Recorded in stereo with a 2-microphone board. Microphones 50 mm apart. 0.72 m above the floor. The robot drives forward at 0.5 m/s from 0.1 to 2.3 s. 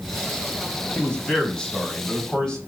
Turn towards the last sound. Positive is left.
turn(degrees=15)  # may be behind; listen again after turning